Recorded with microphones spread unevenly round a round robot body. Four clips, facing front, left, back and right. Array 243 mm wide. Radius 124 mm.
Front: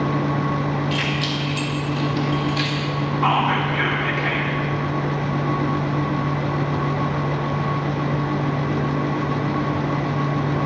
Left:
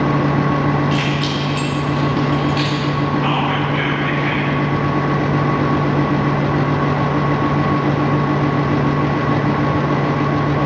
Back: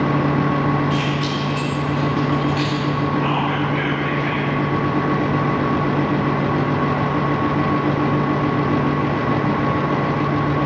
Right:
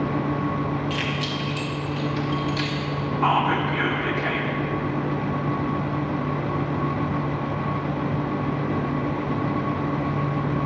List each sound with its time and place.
0.9 s keys jangling: 120° right, 1.4 m; by 2.8 s 95° right, 2 m
3.2 s whispering: 90° right, 1.4 m